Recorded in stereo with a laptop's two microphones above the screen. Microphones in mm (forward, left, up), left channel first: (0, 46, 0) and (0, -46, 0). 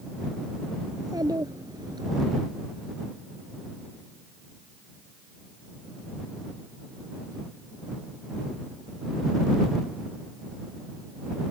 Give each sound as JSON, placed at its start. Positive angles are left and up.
{"t": 0.9, "sound": "a child speaking", "side_deg": -45}